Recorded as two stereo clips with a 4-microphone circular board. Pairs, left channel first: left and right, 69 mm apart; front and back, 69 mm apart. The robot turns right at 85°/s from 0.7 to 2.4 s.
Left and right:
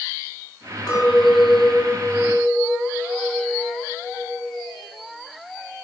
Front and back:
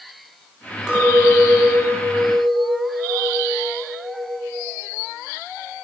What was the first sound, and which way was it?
A clink, 100° left.